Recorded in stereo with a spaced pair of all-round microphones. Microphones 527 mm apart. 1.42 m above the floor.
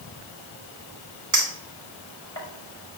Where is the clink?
35° right (ahead or behind), 3.5 m.